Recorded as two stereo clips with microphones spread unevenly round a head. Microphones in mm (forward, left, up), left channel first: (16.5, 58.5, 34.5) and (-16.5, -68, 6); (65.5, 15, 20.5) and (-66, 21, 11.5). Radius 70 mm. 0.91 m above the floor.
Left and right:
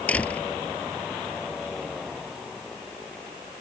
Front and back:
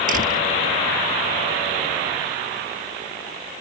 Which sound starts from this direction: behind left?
A door slam, at 0.1 s.